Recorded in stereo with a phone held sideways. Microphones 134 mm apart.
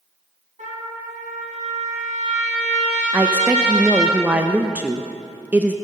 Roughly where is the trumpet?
Right.